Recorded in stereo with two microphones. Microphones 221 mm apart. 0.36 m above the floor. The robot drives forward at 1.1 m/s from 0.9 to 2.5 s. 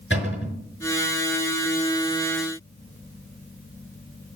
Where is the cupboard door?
55° left (ahead or behind), 5.5 m.